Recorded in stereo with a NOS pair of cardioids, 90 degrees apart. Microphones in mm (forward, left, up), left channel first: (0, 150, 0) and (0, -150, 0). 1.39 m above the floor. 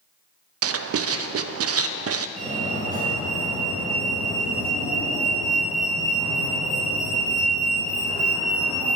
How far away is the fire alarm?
About 3.5 m.